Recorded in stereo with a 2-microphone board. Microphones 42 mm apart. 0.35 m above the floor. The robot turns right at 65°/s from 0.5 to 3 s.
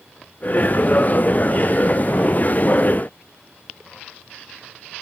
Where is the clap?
No clap in this recording.